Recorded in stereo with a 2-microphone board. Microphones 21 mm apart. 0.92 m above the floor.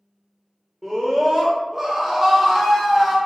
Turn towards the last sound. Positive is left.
turn(degrees=-10)  # may be behind; listen again after turning